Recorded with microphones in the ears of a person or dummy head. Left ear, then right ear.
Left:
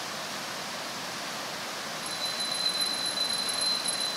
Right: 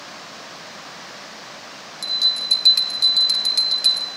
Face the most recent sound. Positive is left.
turn(degrees=-80)